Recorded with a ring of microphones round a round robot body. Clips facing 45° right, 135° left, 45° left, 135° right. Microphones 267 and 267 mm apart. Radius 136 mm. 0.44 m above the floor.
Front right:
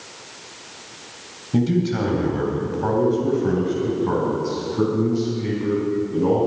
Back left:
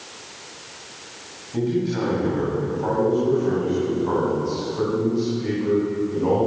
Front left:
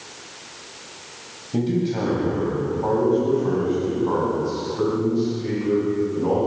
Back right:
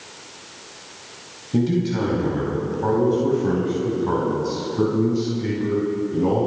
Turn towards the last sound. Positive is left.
turn(degrees=-100)